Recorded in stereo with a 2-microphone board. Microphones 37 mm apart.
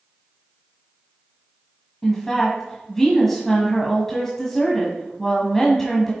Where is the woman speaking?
10° left (ahead or behind), 1.3 m.